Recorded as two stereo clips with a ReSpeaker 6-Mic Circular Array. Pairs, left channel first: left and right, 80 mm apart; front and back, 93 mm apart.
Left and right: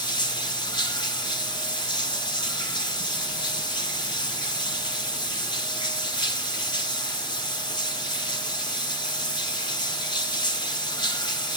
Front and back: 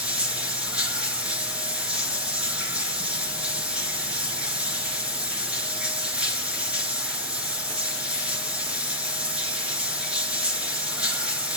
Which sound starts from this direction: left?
Running water, at 0.0 s.